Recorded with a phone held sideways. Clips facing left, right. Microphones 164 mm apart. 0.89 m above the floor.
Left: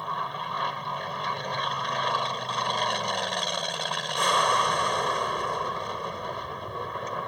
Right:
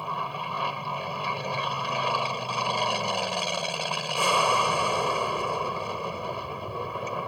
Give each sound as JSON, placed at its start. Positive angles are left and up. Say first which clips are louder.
{"t": 0.0, "sound": "an aircraft", "louder": "right 1 dB", "side_deg": -5}